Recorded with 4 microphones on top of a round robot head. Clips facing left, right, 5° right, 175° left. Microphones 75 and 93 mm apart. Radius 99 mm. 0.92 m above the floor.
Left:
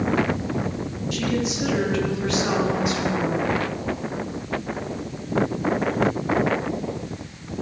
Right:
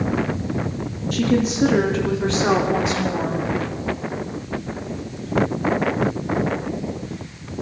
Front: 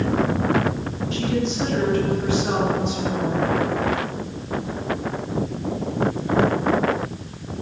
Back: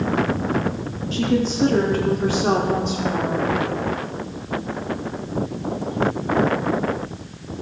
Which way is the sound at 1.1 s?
135° right.